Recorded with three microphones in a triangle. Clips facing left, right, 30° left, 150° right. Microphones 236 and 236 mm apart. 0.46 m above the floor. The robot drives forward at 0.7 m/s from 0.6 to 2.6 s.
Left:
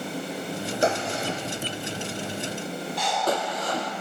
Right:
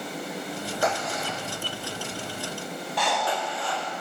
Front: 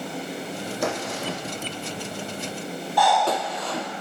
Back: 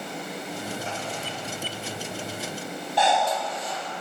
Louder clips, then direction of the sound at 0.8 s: Left 4 dB, front 6 dB; 30° left.